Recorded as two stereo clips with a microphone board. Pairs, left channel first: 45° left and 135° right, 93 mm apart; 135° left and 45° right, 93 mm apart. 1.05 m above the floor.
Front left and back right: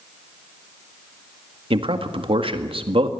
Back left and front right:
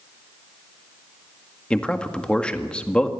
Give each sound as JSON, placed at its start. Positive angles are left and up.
{"t": 1.7, "sound": "a man speaking", "azimuth_deg": -145, "distance_m": 1.8}